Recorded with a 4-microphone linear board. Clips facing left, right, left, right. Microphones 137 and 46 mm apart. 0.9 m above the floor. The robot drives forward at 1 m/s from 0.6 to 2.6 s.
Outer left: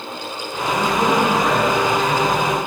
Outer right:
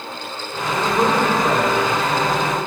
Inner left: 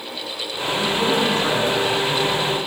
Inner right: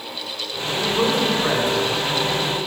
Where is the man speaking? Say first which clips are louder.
Even, even; 40° right (ahead or behind), 3.5 m; by 2.6 s 30° right (ahead or behind), 5 m.